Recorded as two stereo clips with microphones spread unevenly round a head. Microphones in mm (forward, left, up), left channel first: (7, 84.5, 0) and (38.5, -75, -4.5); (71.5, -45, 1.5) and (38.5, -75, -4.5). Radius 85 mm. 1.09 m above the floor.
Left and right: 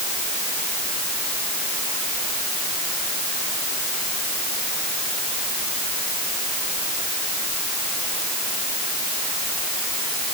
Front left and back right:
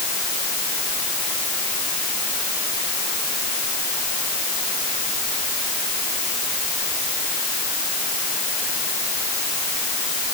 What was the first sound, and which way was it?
Only background noise.